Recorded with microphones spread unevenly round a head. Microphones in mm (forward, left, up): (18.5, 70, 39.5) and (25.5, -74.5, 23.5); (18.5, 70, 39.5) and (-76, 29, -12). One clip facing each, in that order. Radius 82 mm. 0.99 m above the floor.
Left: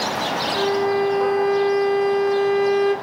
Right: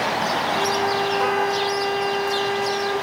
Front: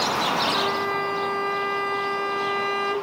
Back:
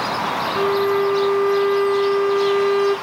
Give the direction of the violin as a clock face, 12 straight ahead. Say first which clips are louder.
Left 6 dB, back 7 dB; 12 o'clock.